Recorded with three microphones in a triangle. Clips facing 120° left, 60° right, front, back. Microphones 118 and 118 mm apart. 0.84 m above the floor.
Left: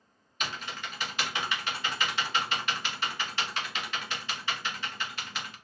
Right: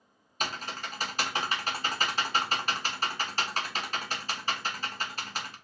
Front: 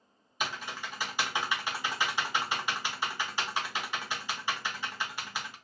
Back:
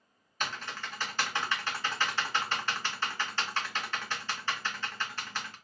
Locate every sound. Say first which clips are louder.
0.4 s typing on a keyboard: right 2 dB, front 1 dB; 70° right, 0.5 m